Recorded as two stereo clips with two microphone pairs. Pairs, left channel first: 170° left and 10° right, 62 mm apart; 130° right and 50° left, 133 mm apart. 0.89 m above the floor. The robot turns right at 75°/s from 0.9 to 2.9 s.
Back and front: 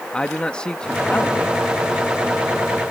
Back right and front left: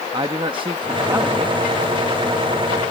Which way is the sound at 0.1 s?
95° left.